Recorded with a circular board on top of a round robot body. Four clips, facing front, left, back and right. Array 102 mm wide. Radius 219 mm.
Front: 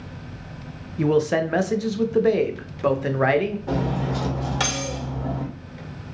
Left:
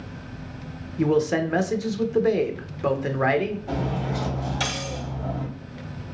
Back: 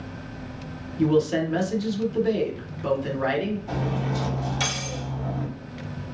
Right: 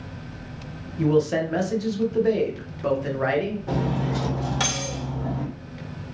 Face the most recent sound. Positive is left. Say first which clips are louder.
# right 2 dB, front 3 dB
turn(degrees=-30)